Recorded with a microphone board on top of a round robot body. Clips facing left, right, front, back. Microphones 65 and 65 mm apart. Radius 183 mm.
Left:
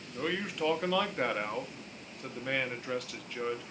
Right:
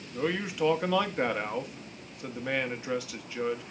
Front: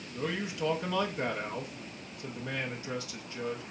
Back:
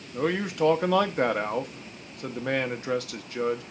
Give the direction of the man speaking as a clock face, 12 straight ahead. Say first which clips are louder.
Right 4 dB, back 8 dB; 6 o'clock.